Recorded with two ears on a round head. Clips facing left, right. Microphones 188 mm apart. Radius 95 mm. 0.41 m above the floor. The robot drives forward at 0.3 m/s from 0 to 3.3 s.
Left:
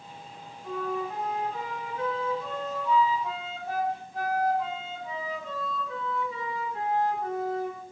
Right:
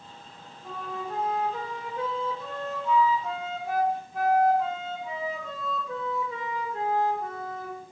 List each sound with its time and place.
0.6 s a flute: 30° right (ahead or behind), 1.1 m; by 7.8 s 45° right (ahead or behind), 0.9 m